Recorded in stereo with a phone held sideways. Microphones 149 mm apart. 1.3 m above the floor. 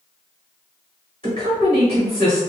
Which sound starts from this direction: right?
A woman speaking, at 1.2 s.